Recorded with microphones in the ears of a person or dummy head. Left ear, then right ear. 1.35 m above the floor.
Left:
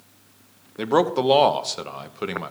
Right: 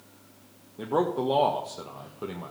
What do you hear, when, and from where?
0.8 s a man speaking: 60° left (ahead or behind), 1.0 m